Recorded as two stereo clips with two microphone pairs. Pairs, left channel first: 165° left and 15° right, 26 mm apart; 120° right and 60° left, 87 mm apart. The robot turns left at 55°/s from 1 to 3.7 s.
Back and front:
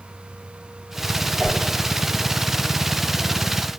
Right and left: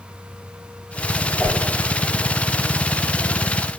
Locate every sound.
1.4 s a whoosh: 45° right, 1.2 m; by 1.6 s 55° right, 1.2 m